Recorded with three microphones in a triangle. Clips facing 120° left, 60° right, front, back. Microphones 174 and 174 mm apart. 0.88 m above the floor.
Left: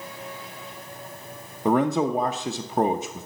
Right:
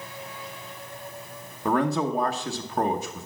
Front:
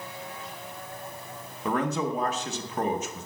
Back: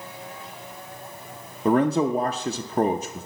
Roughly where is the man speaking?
Behind.